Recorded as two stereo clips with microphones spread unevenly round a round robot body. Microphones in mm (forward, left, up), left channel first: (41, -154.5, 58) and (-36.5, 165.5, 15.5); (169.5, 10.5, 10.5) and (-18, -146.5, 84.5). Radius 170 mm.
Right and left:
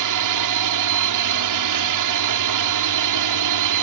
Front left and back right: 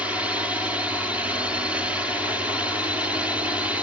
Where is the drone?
130° left.